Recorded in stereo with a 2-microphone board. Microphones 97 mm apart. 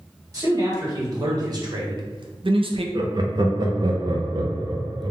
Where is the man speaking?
35° right (ahead or behind), 1.6 m; by 2.9 s 70° right (ahead or behind), 0.5 m.